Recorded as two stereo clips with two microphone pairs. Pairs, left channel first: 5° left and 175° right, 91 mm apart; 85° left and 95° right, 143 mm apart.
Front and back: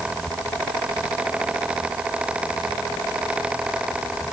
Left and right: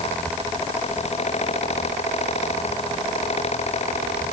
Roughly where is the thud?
I don't hear a thud.